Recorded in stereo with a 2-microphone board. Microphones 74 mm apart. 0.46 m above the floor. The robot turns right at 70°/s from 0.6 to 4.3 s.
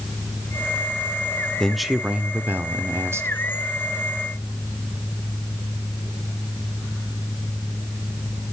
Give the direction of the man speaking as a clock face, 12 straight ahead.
6 o'clock.